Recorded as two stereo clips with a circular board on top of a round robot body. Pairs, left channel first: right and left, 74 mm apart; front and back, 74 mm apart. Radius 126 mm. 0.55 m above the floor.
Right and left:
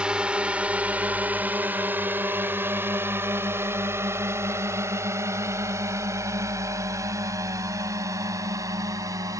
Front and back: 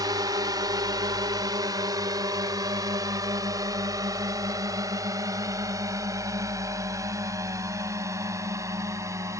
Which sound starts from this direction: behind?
A drone, at 0.0 s.